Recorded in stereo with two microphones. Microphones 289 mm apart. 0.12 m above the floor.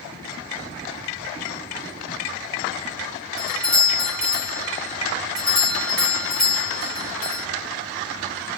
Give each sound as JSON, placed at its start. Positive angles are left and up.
{"t": 3.4, "sound": "a doorbell", "side_deg": 5, "distance_m": 2.0}